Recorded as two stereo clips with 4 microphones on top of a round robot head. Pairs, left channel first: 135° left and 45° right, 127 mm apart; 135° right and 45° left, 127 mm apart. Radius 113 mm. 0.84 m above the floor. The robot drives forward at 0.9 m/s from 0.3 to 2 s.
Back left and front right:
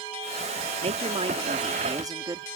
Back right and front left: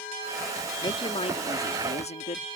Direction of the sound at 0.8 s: 80° right.